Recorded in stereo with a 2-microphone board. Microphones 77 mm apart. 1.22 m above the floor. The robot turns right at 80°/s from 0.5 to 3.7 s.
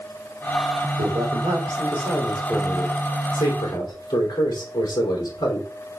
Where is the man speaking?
105° right, 3.5 m; by 5.7 s 110° left, 3.5 m.